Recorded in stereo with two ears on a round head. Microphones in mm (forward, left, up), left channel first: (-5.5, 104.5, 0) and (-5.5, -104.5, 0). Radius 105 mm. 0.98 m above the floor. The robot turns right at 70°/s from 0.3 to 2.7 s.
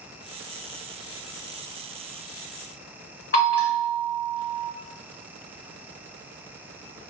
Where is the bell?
45° left (ahead or behind), 1.8 m.